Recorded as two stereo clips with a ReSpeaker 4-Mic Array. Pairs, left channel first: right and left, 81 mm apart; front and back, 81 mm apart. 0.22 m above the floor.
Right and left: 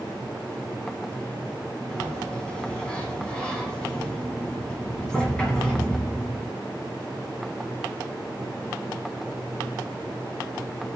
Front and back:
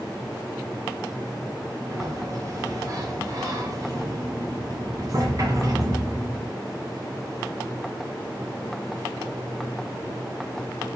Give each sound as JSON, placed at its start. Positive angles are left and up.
{"t": 1.9, "sound": "a sliding door", "azimuth_deg": -165, "distance_m": 2.0}